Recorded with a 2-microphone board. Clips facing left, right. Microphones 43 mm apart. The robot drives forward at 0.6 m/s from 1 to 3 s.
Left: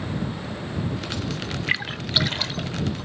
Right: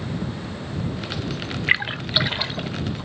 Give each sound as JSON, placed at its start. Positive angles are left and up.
{"t": 1.7, "sound": "a splash", "side_deg": -20, "distance_m": 0.6}